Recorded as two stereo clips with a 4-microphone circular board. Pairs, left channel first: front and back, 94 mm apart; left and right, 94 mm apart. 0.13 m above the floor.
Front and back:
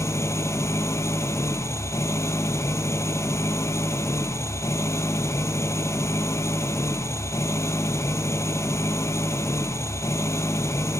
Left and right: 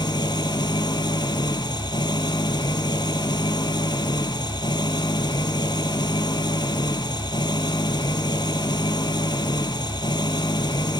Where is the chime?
No chime in this recording.